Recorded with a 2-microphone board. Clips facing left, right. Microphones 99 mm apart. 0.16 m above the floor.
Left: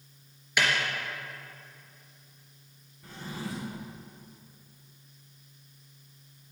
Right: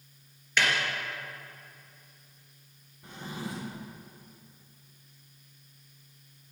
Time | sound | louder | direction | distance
0.6 | a snare drum | even | 10° left (ahead or behind) | 3 m
3.0 | a drawer | even | 20° right (ahead or behind) | 3 m